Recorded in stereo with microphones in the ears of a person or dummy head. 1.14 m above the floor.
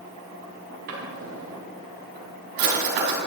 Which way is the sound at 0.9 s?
55° right (ahead or behind).